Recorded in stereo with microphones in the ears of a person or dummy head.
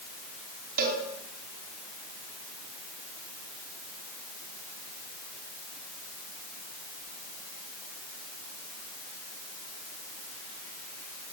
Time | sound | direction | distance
0.8 | a cowbell | 50° right (ahead or behind) | 4.5 m